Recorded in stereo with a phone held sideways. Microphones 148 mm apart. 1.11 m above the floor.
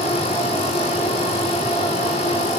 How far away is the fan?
About 4 m.